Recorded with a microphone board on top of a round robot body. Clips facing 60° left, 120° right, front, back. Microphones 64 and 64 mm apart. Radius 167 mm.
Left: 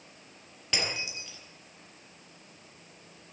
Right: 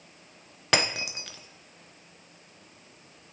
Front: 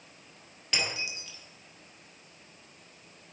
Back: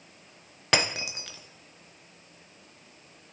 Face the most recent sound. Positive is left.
turn(degrees=-150)